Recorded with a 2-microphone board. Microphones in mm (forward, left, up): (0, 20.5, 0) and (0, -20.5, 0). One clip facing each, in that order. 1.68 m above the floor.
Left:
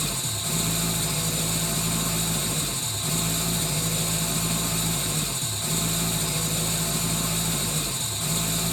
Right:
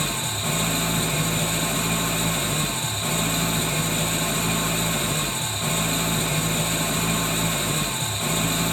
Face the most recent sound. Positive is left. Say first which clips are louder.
# right 5 dB
turn(degrees=-45)  # may be behind; listen again after turning